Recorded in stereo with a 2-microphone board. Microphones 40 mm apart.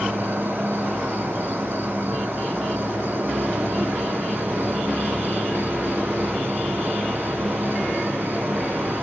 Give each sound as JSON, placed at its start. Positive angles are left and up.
{"t": 0.0, "sound": "an insect", "side_deg": -85, "distance_m": 6.0}